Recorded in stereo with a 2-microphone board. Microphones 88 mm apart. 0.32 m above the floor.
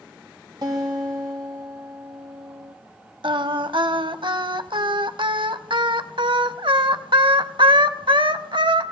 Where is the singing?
70° right (ahead or behind), 0.5 m.